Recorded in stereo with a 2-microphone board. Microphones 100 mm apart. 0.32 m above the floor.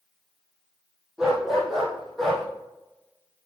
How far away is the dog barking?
About 2.5 m.